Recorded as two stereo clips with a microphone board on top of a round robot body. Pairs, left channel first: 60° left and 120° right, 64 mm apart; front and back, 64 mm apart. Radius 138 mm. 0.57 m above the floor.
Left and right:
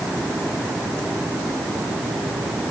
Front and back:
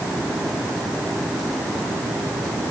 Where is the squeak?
No squeak in this recording.